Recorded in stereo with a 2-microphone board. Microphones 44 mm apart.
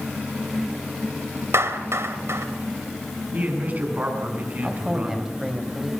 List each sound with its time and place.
1.5 s a clap: 80° right, 2.5 m
3.3 s a man speaking: 40° right (ahead or behind), 8 m
4.6 s a man speaking: 10° right (ahead or behind), 4 m